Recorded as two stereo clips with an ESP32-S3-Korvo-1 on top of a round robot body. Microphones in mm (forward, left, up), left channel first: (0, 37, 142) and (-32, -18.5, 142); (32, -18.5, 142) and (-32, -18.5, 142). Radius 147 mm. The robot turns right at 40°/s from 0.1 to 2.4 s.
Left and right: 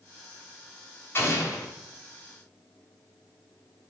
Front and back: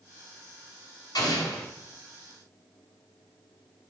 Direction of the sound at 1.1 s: 5° left.